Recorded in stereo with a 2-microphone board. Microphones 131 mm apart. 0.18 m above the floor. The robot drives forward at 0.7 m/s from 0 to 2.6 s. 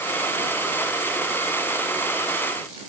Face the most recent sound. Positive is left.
No sound to turn to.